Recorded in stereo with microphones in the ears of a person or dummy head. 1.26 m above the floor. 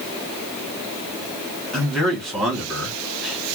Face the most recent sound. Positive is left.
turn(degrees=0)  # may be behind; listen again after turning